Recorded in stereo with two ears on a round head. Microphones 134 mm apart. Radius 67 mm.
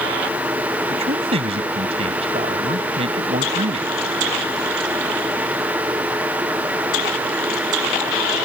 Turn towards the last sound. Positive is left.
turn(degrees=-40)  # may be behind; listen again after turning